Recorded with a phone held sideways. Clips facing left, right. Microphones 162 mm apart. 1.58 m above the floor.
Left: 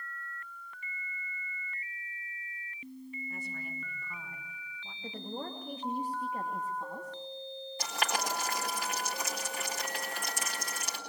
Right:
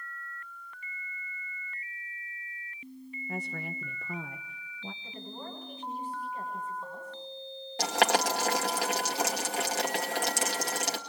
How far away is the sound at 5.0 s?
About 2.5 m.